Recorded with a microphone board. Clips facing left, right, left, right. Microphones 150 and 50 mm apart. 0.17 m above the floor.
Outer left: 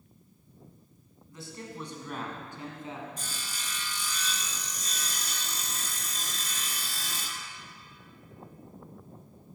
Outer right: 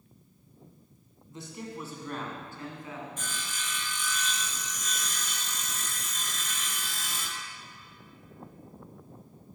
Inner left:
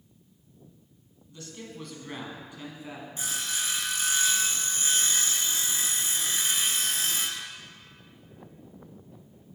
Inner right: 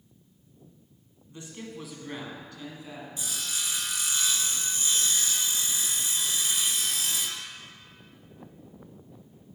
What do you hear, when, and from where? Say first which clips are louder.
1.3 s a man speaking: outer right 2 dB, inner right 2 dB; 25° right (ahead or behind), 1.2 m; by 3.1 s 30° left (ahead or behind), 1.4 m
3.2 s sawing: outer right 2 dB, inner left 3 dB; 40° left (ahead or behind), 0.8 m